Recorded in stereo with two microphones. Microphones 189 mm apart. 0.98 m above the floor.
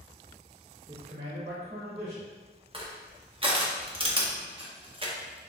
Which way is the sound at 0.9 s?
55° right (ahead or behind).